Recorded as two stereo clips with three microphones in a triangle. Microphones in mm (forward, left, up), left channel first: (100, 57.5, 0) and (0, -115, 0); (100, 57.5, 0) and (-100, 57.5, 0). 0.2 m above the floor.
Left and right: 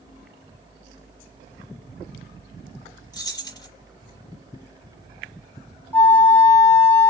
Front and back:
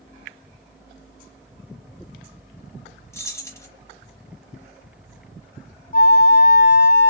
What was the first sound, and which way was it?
Keys jangling, 45° left.